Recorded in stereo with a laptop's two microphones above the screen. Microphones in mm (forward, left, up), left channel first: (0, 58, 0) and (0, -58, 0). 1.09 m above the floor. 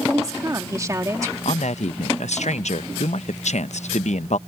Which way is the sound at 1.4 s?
80° left.